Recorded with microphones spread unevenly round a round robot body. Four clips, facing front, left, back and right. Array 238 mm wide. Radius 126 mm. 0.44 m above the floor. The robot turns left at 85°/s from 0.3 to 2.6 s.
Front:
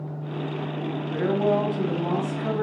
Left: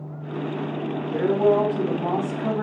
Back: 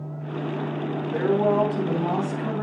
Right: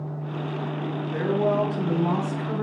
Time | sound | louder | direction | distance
1.1 | a woman speaking | left 4 dB, back 2 dB | straight behind | 3.5 m